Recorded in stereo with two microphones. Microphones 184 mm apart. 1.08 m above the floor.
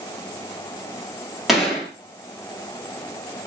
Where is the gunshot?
Centre (ahead or behind), 1.5 m.